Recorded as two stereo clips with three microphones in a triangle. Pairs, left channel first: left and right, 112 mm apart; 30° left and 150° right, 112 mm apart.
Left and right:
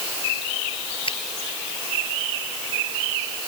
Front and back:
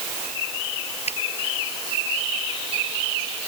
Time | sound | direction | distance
1.1 | a finger snap | 50° left | ?